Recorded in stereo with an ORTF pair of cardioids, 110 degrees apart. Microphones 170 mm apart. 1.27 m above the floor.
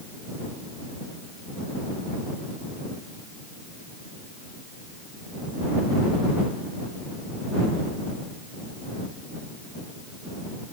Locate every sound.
Only background noise.